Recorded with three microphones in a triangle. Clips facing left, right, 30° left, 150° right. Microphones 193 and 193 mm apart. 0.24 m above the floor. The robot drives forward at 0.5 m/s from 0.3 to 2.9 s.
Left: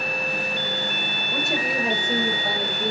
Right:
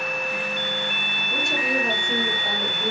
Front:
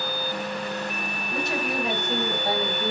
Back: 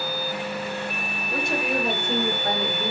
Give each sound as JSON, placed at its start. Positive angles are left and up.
{"t": 1.3, "sound": "a woman speaking", "azimuth_deg": 175, "distance_m": 3.5}